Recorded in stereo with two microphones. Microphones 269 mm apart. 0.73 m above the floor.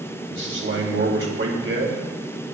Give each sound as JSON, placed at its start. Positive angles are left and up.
{"t": 0.3, "sound": "a man speaking", "side_deg": -50, "distance_m": 3.0}